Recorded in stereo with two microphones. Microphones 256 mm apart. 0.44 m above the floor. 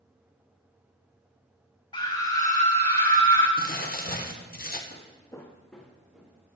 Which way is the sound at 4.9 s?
35° left (ahead or behind).